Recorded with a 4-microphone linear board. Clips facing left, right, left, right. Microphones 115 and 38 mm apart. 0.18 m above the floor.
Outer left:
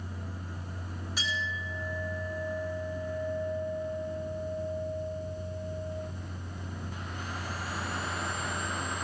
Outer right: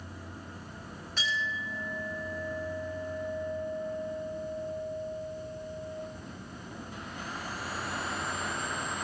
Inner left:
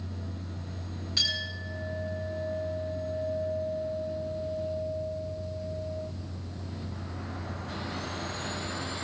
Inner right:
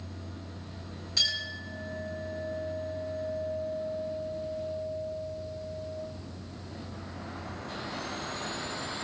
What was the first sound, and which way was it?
A clink, 10° left (ahead or behind).